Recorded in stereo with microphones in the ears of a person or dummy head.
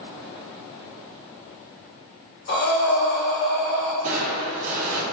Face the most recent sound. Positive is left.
turn(degrees=-45)  # may be behind; listen again after turning